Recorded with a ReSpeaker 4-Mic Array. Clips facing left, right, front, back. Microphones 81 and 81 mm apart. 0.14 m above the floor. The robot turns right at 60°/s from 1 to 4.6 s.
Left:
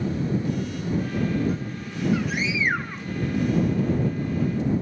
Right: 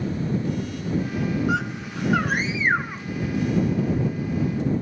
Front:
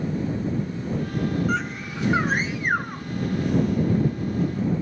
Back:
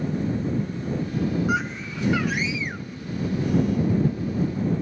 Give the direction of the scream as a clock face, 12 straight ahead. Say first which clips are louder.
Right 4 dB, back 1 dB; 3 o'clock.